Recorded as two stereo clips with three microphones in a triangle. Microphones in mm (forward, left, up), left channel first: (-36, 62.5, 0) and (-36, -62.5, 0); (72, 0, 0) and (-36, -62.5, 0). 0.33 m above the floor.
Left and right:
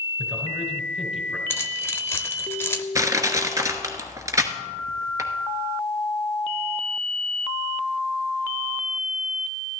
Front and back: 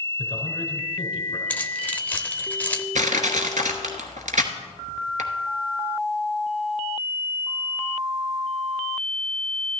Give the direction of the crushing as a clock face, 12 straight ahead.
5 o'clock.